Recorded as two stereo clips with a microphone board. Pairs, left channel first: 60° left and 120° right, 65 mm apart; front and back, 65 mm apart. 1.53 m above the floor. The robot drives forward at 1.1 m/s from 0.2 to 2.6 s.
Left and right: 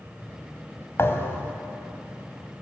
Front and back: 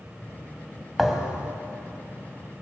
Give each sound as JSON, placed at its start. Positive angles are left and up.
{"t": 1.0, "sound": "a thud", "azimuth_deg": 95, "distance_m": 2.0}